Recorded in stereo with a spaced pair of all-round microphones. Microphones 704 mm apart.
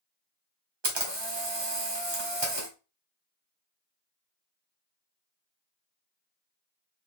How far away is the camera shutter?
About 1.4 m.